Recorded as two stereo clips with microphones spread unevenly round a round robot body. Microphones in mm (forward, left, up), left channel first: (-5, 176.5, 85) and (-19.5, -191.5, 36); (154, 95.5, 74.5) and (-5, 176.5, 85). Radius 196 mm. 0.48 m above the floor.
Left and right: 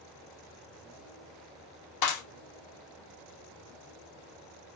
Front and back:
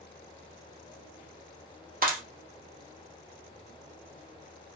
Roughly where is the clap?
Behind left.